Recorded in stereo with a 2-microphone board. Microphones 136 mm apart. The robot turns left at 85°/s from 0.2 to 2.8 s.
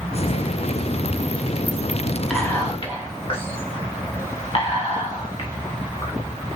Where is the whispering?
Centre (ahead or behind), 1.9 m; by 6.1 s 40° left (ahead or behind), 1.9 m.